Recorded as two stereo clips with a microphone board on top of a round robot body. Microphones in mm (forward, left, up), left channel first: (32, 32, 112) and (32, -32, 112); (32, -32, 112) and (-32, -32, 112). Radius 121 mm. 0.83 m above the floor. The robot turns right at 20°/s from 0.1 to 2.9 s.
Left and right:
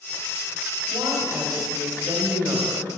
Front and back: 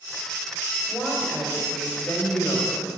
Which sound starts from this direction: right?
A woman speaking, at 0.9 s.